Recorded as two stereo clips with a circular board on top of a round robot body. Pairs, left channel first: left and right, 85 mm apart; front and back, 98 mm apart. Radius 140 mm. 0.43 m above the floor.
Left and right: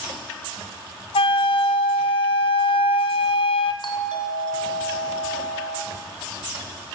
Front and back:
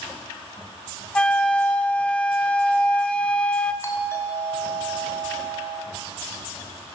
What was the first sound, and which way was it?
A flute, 80° left.